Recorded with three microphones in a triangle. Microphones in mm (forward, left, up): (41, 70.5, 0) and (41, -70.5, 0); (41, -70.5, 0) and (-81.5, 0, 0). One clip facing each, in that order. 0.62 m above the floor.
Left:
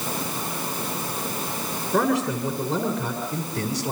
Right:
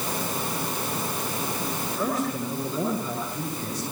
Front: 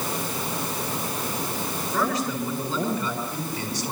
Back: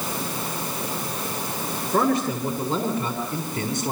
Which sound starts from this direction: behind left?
A man speaking, at 1.9 s.